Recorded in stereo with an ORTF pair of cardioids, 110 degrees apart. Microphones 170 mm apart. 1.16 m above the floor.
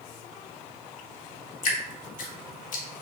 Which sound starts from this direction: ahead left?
Dripping, at 1.6 s.